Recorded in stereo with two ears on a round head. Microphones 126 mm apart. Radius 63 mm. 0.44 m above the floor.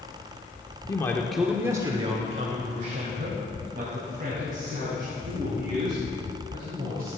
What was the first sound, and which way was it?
A man speaking, 25° left (ahead or behind).